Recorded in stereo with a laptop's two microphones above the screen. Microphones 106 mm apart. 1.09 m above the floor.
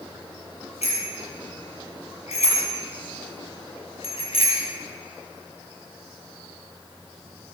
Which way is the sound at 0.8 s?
90° left.